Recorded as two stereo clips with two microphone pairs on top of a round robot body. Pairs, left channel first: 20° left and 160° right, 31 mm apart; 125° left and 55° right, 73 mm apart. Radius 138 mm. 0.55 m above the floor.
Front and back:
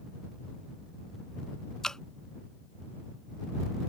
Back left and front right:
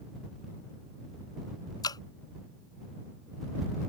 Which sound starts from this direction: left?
Dripping, at 1.8 s.